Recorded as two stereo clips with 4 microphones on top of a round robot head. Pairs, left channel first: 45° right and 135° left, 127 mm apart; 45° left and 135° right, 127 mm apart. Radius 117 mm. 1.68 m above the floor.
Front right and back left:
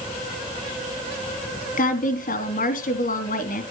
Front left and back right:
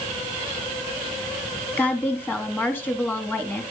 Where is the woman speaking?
30° right, 3.5 m.